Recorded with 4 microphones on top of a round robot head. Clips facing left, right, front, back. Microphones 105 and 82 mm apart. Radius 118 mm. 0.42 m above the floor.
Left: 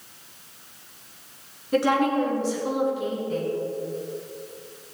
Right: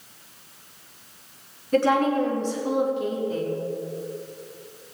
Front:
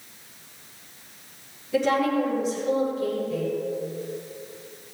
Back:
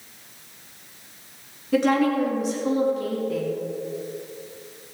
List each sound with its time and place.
1.7 s a woman speaking: 170° left, 5 m; by 3.6 s 175° right, 5 m